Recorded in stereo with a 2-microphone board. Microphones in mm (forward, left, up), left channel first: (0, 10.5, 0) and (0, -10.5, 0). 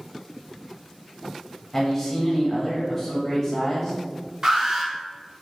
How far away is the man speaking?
About 0.9 m.